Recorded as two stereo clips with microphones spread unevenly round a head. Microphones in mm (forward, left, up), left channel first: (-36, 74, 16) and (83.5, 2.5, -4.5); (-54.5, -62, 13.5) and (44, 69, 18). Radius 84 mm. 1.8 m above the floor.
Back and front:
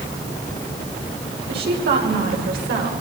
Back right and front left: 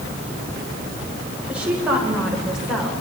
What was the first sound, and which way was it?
A woman speaking, 30° right.